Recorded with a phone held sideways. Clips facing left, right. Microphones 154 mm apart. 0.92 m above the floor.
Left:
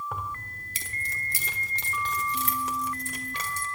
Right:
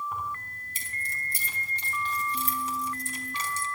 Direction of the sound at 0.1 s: 70° left (ahead or behind).